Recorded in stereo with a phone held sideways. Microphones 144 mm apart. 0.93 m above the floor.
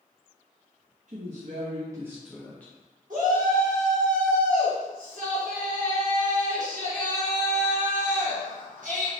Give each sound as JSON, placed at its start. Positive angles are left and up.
{"t": 1.1, "sound": "a woman speaking", "side_deg": -60, "distance_m": 0.6}
{"t": 3.1, "sound": "a shout", "side_deg": -65, "distance_m": 1.5}